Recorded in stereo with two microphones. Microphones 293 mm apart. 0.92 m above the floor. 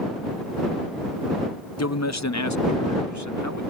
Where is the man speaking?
60° left (ahead or behind); by 3.7 s 75° left (ahead or behind).